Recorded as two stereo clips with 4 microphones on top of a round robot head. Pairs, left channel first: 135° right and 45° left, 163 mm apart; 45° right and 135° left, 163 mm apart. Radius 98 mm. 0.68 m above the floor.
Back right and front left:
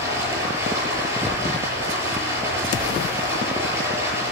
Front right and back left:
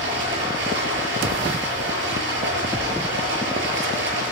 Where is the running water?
120° left, 7.5 m.